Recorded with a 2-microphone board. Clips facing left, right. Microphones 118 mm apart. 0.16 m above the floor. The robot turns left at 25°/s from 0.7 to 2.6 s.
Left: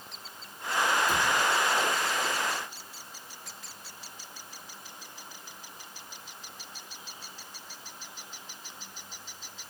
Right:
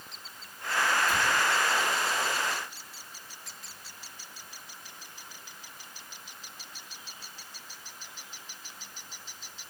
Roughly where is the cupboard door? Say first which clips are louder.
Left 1 dB; left.